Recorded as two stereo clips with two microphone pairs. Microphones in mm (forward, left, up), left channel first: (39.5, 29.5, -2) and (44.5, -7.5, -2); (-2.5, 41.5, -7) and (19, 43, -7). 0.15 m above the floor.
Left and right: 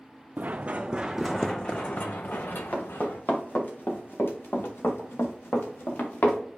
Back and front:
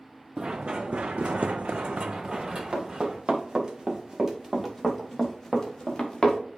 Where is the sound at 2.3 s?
45° left, 2.5 m; by 6.4 s 120° left, 2.0 m.